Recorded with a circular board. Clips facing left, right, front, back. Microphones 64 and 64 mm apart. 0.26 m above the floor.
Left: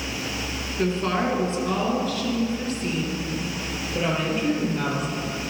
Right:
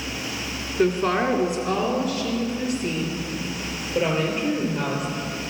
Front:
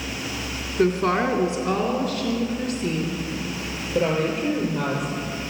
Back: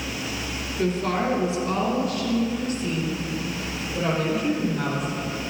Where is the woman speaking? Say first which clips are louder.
Right 3 dB, front 4 dB; 15° right, 2.5 m; by 5.1 s 10° right, 6.5 m.